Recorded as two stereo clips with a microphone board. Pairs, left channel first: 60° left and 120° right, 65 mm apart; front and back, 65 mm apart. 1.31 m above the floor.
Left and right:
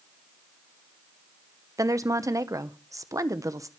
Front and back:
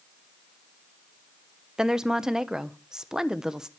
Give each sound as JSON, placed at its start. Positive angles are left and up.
{"t": 1.8, "sound": "a woman speaking", "azimuth_deg": -100, "distance_m": 1.0}